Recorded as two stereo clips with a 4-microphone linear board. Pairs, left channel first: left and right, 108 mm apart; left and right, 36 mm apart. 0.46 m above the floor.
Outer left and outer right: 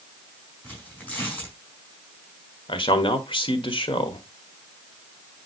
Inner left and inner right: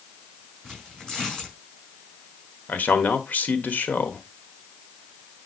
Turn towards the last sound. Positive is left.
turn(degrees=55)  # may be behind; listen again after turning